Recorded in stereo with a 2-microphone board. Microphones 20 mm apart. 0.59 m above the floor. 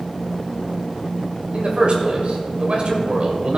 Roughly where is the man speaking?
Right.